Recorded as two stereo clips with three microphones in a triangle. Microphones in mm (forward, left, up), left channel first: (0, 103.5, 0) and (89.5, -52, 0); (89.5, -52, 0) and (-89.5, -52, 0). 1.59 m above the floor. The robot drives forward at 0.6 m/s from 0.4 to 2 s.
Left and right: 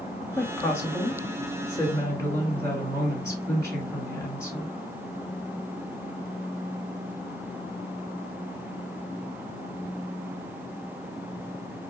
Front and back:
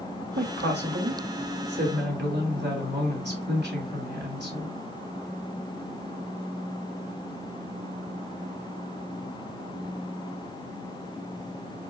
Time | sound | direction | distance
0.4 | a woman speaking | 160° right | 2.5 m